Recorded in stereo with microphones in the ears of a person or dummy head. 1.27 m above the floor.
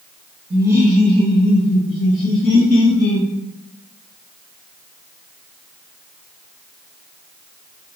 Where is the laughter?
25° right (ahead or behind), 0.8 m; by 3.3 s 50° left (ahead or behind), 2 m.